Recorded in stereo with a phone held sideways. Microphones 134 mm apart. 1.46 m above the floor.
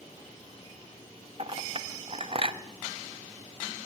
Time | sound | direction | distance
1.4 | a clink | 45° right (ahead or behind) | 0.6 m